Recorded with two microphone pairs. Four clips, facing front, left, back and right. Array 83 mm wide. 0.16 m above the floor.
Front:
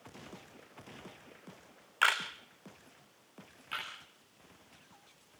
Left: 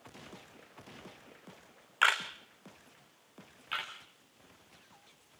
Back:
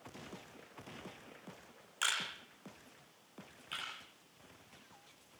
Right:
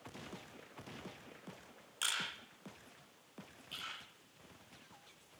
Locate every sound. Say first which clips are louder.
2.0 s a camera shutter: left 14 dB, front 9 dB; 55° left, 3 m
3.7 s a camera shutter: left 10 dB, front 4 dB; 70° left, 8 m